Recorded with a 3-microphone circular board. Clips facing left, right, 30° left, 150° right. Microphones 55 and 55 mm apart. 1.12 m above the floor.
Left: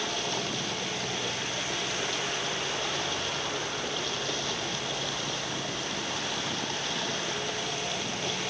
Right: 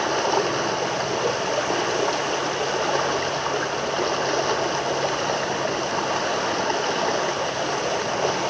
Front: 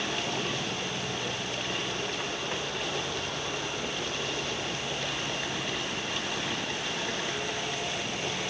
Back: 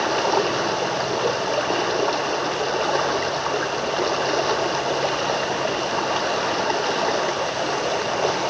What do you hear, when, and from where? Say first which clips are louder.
0.0 s running water: right 11 dB, back 12 dB; 125° right